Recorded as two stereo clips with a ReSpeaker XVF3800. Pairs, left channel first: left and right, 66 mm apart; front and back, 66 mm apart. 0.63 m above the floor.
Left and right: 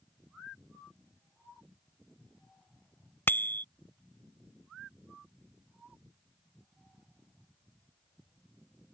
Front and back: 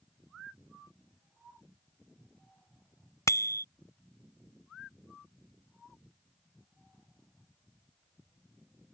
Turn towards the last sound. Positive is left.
turn(degrees=35)